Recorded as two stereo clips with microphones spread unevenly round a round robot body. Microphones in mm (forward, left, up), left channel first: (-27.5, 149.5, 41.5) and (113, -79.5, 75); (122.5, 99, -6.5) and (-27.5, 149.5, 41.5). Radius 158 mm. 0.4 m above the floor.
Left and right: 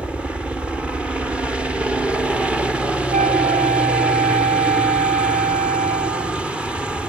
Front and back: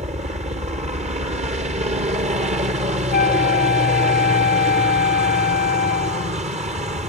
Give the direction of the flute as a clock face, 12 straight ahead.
12 o'clock.